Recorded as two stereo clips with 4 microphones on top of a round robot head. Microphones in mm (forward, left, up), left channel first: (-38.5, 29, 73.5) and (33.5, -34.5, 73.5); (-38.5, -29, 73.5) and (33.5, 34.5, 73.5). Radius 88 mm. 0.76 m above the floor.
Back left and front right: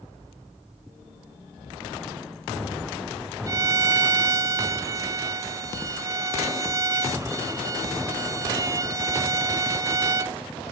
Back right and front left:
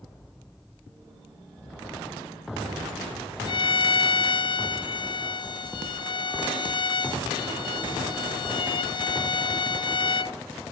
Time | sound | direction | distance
3.5 | a violin | 100° right | 0.5 m